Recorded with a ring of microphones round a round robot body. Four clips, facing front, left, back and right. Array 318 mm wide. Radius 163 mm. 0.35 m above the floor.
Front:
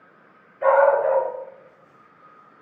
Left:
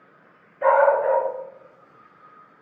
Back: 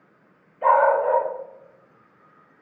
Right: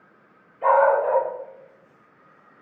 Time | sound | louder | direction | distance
0.6 | a dog barking | left 1 dB, front 1 dB | 65° left | 2.5 m